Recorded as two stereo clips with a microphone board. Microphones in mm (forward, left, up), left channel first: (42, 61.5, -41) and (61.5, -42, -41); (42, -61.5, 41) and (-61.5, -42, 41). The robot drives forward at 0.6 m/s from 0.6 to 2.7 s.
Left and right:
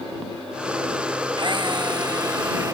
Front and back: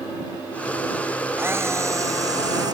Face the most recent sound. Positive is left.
turn(degrees=-140)